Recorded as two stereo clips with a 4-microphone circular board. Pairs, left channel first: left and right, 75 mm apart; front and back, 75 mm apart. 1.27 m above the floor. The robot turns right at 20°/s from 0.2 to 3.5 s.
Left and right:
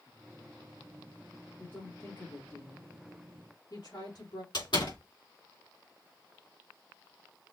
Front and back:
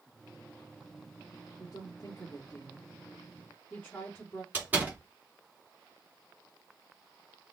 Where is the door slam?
110° left, 2.5 m.